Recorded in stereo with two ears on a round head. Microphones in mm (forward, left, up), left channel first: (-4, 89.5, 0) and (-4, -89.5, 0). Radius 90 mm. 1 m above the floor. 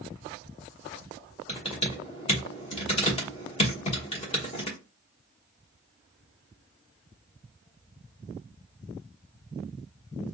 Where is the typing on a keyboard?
30° left (ahead or behind), 1.1 m.